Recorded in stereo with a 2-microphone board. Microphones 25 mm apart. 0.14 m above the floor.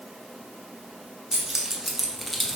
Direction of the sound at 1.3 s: 25° right (ahead or behind).